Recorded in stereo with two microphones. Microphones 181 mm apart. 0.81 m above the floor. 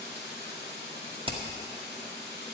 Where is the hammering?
30° right (ahead or behind), 1.6 m.